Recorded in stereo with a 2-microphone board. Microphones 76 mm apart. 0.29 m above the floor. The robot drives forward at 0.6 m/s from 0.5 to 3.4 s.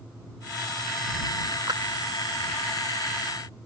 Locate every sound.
1.7 s a clap: 70° right (ahead or behind)